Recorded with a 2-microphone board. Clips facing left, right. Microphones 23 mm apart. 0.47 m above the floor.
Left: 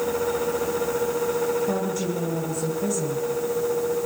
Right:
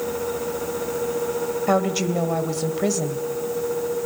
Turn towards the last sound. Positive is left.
turn(degrees=-55)  # may be behind; listen again after turning